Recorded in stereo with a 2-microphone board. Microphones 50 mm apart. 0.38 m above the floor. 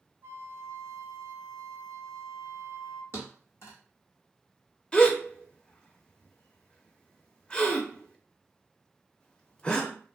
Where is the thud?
55° left (ahead or behind), 1.2 m.